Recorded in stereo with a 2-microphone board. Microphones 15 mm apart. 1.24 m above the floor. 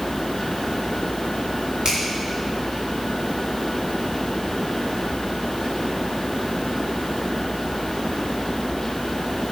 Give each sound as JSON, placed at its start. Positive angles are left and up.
{"t": 1.9, "sound": "a finger snap", "side_deg": -50, "distance_m": 5.0}